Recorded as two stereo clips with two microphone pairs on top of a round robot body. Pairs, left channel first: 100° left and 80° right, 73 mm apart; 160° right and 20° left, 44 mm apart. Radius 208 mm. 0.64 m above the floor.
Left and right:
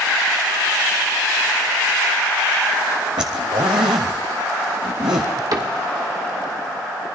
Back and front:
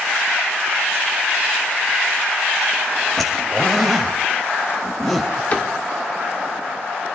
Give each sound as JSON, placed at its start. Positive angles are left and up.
{"t": 3.2, "sound": "a zipper", "azimuth_deg": -75, "distance_m": 0.5}
{"t": 5.5, "sound": "a cupboard door", "azimuth_deg": -110, "distance_m": 2.5}